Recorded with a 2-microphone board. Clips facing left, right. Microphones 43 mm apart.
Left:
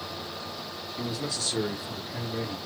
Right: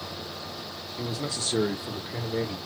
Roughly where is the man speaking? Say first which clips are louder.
Right 1 dB; centre.